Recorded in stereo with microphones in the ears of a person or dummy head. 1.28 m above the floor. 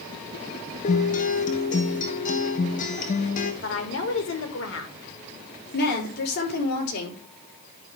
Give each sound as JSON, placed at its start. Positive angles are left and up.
{"t": 0.8, "sound": "a guitar", "side_deg": 45, "distance_m": 0.9}
{"t": 3.6, "sound": "a woman speaking", "side_deg": 70, "distance_m": 1.8}
{"t": 5.7, "sound": "a woman speaking", "side_deg": 60, "distance_m": 4.0}